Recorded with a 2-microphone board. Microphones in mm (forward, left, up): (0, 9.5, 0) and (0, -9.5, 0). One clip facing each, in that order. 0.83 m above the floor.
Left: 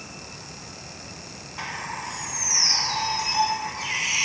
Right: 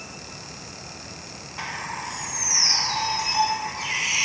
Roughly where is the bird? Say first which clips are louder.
Right 1 dB; centre.